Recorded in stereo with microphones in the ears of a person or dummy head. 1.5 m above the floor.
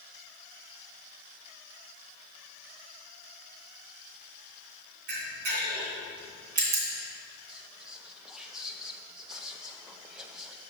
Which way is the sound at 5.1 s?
55° right (ahead or behind).